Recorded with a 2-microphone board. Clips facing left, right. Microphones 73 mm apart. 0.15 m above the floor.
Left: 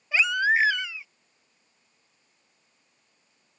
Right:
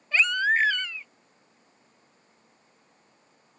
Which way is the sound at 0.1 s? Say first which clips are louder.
Left 1 dB; 10° left (ahead or behind).